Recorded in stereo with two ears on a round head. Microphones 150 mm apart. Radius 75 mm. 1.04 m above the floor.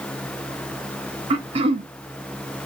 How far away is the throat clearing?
About 0.5 m.